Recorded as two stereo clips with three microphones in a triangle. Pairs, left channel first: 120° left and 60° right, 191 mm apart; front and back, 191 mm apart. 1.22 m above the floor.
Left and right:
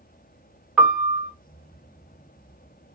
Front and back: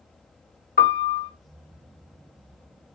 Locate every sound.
0.8 s a piano: 25° left, 0.9 m